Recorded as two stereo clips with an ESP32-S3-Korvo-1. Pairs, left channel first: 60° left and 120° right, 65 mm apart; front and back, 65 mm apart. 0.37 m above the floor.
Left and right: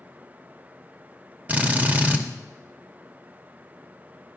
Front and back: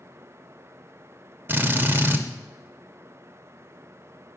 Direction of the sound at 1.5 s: 160° right.